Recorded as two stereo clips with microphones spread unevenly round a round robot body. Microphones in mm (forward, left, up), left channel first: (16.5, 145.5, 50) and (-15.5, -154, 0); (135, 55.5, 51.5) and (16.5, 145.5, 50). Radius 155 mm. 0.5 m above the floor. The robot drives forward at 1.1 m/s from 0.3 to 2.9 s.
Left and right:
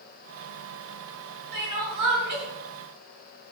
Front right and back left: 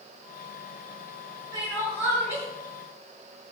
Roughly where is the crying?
Behind right.